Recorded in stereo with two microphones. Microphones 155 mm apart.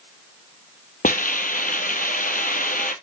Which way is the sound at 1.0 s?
70° left (ahead or behind).